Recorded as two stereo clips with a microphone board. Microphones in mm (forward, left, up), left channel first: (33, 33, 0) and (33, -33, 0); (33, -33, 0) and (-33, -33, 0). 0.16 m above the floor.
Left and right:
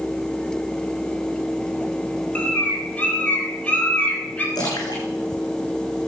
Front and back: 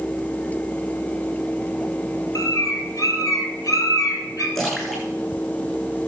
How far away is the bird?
About 3.5 m.